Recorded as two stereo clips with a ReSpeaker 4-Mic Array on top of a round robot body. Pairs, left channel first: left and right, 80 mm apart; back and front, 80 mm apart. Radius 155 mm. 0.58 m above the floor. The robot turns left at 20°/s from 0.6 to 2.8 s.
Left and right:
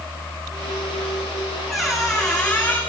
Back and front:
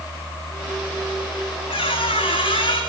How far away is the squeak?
About 6 m.